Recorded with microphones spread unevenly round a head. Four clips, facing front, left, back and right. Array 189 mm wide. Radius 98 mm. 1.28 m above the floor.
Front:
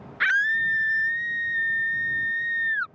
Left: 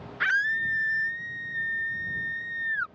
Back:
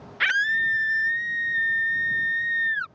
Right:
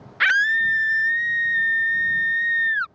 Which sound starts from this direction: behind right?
A scream, at 0.2 s.